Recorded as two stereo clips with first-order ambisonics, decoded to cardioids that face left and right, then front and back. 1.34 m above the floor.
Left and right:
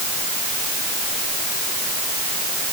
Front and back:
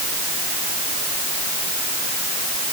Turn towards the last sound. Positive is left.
No sound to turn to.